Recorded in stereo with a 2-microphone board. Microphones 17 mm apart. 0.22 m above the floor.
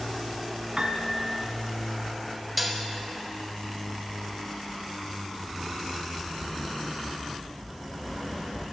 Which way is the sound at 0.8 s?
45° right (ahead or behind).